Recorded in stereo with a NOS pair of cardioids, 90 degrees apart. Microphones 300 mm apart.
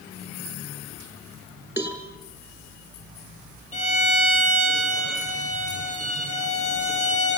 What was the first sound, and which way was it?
A cowbell, 5° right.